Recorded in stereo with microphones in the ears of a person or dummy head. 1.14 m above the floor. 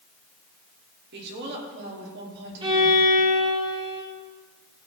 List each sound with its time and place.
1.1 s a woman speaking: 55° right (ahead or behind), 3 m
2.6 s a violin: 25° right (ahead or behind), 2.5 m